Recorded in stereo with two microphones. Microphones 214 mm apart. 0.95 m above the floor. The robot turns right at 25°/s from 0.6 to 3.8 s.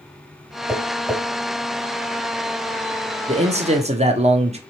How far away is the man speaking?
About 0.7 m.